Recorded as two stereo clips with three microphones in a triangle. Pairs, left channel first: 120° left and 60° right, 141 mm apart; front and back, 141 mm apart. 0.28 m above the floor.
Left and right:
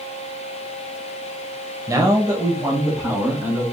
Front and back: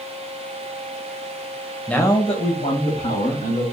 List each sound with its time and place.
1.9 s a man speaking: 75° right, 0.9 m; by 3.6 s 15° left, 2.5 m